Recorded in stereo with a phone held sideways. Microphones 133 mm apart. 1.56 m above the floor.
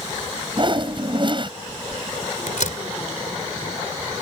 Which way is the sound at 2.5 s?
75° left (ahead or behind).